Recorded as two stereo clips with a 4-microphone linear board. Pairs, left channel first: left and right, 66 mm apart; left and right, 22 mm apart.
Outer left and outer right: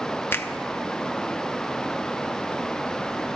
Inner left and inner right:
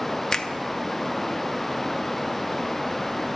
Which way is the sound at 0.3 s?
30° left (ahead or behind).